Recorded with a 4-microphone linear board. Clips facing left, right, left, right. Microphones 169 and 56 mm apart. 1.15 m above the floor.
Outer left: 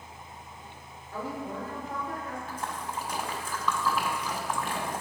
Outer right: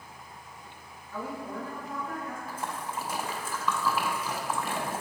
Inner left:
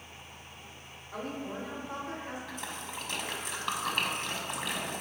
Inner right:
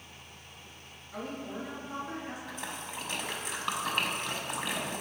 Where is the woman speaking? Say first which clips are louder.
Outer left 1 dB, inner left 1 dB; 40° left (ahead or behind), 2.5 m.